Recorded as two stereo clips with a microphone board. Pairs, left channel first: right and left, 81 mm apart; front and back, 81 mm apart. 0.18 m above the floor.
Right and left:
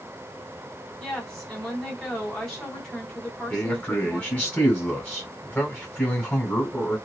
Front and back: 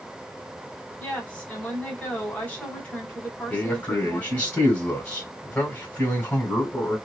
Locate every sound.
1.0 s a woman speaking: 20° right, 1.6 m
3.5 s a man speaking: 45° right, 1.7 m